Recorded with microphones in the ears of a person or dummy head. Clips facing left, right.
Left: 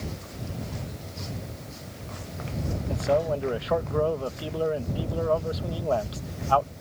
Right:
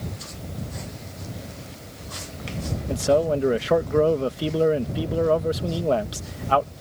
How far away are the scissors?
No scissors in this recording.